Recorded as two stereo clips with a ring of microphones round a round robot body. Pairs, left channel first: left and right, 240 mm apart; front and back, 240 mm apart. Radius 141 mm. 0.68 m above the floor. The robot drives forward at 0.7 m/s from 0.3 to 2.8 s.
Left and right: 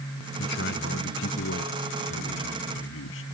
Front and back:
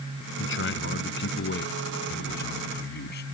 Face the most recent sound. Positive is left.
turn(degrees=45)